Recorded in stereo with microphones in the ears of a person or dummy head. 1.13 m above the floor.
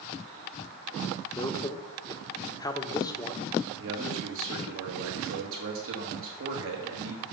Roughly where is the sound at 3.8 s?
Right.